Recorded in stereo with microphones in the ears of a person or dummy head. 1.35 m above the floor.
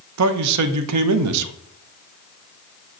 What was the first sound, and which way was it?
A man speaking, 85° right.